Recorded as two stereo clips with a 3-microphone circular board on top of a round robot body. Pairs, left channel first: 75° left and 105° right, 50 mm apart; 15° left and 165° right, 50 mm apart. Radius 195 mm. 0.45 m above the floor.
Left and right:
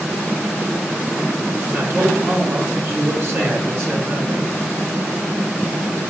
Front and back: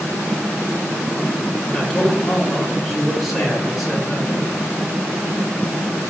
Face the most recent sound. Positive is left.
turn(degrees=-75)